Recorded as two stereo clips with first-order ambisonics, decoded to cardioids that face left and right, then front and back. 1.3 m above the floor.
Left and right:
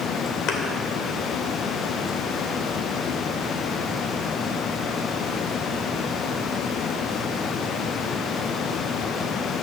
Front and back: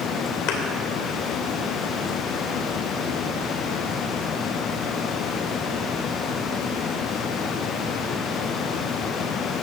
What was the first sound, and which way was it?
A thud, 40° left.